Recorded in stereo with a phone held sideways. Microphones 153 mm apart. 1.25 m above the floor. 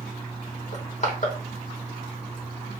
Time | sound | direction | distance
0.7 | crushing | 55° left (ahead or behind) | 1.0 m